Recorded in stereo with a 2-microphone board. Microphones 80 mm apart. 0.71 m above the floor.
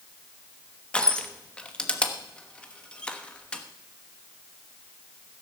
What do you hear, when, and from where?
0.9 s crushing: 10° left (ahead or behind), 1.1 m